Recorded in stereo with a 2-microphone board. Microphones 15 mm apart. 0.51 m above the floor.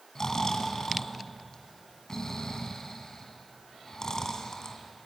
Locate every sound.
0.1 s snoring: 40° left (ahead or behind), 2.5 m